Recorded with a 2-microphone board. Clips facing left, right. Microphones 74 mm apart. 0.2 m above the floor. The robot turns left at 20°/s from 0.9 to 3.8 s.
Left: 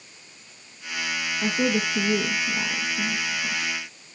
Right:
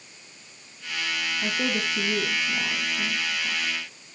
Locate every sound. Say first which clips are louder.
1.4 s a woman speaking: left 5 dB; 45° left (ahead or behind), 2 m; by 3.7 s 60° left (ahead or behind), 2 m